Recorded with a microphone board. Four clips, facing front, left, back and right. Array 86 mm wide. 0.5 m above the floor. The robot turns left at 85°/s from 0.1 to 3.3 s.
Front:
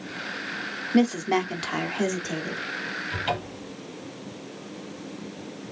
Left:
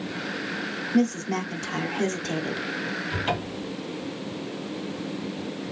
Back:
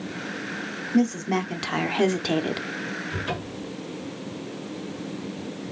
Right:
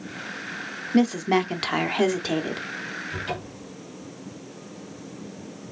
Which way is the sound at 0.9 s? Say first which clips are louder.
Right 4 dB, front 1 dB; 40° right.